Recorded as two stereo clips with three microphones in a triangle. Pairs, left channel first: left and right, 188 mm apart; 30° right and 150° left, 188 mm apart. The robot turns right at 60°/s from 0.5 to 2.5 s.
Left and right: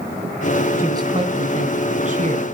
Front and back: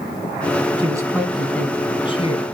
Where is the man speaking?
155° right, 1.5 m; by 2.4 s 60° right, 1.5 m.